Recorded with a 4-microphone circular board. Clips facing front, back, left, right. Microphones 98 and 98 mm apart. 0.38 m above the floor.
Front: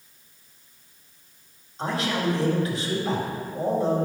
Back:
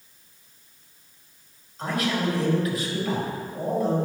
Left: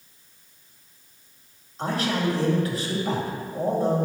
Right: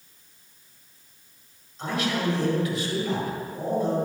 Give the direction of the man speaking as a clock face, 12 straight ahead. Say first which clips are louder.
Even, left 2 dB; 10 o'clock.